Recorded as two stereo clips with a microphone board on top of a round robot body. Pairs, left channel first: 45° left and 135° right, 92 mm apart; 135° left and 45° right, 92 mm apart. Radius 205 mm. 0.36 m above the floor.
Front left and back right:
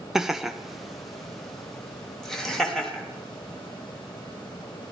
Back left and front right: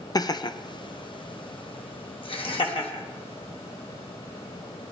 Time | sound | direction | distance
0.1 | laughter | 140° left | 1.0 m